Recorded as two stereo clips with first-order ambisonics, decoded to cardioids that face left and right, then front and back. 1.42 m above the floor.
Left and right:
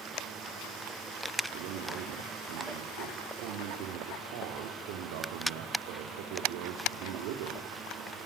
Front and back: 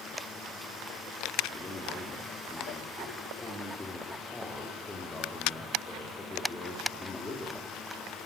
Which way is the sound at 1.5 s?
80° right.